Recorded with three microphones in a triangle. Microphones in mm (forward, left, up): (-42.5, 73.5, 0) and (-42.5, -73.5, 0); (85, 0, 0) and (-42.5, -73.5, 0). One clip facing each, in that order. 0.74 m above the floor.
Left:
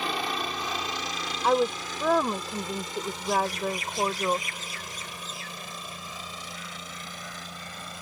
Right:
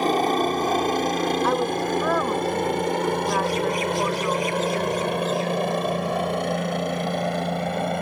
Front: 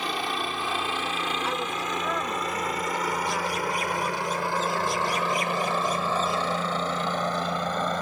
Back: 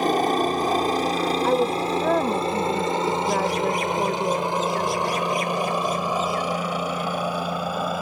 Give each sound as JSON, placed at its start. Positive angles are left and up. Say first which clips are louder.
{"t": 0.0, "sound": "a helicopter", "louder": "right 11 dB, back 10 dB", "azimuth_deg": -120}
{"t": 1.4, "sound": "a woman speaking", "louder": "right 2 dB, back 9 dB", "azimuth_deg": 175}